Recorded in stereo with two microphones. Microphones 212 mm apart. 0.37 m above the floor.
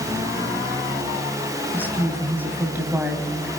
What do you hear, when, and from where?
1.7 s a woman speaking: 10° right (ahead or behind), 3 m